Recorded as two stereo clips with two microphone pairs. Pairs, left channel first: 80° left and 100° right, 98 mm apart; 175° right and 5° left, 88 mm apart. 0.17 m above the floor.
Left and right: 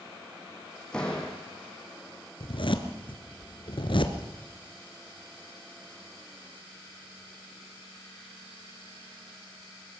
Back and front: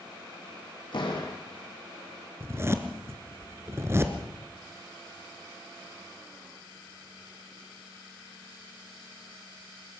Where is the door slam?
165° left, 5 m.